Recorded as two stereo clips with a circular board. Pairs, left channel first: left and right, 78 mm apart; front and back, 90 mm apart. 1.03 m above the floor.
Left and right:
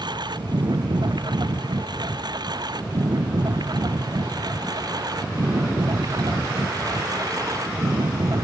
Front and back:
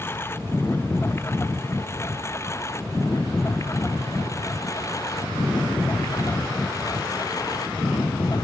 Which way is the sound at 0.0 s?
65° right.